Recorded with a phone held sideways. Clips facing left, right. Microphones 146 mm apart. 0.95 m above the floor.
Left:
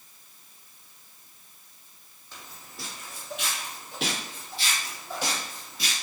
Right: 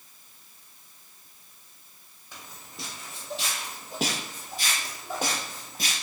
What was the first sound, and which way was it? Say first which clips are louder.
Footsteps: even; 15° right (ahead or behind).